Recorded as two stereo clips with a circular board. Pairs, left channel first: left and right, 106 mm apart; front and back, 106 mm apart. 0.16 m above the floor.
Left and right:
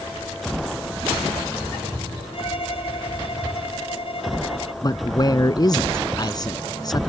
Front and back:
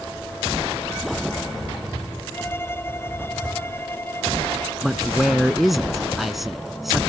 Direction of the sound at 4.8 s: 90° left.